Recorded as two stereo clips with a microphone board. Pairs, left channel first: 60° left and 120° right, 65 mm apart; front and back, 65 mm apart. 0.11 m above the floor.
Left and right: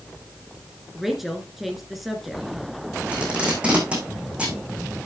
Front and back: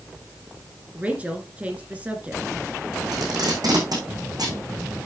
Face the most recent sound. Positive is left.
turn(degrees=170)